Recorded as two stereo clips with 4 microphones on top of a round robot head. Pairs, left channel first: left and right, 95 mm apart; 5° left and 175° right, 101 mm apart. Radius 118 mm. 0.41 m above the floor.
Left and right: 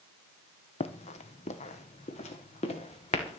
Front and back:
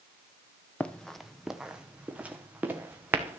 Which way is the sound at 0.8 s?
80° left.